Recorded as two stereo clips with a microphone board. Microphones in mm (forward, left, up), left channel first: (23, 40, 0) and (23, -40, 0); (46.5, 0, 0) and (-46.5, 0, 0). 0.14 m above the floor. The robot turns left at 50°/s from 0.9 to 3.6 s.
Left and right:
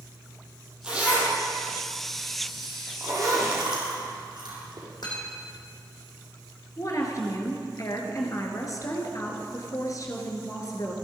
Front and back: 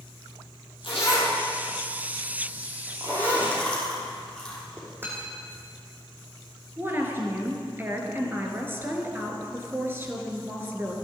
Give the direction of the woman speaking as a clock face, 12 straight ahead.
8 o'clock.